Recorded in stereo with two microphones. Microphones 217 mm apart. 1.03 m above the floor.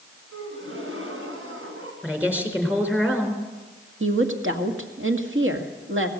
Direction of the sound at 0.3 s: 70° right (ahead or behind).